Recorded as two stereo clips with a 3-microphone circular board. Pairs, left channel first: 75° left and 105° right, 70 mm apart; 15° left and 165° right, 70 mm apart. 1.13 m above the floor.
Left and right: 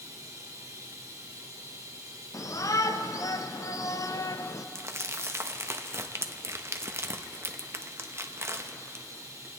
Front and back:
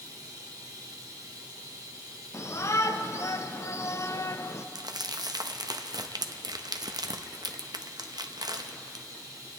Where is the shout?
55° left, 0.6 m.